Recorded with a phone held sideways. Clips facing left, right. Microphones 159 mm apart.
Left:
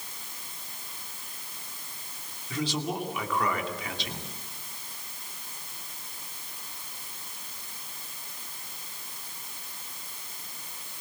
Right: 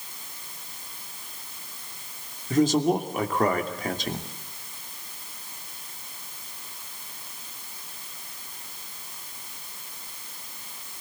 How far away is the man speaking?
About 2.5 m.